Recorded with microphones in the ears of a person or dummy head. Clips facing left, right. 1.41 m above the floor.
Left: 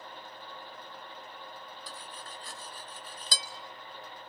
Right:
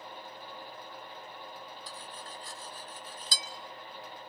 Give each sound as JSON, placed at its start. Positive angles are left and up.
{"t": 1.9, "sound": "cutlery clinking", "side_deg": 50, "distance_m": 1.2}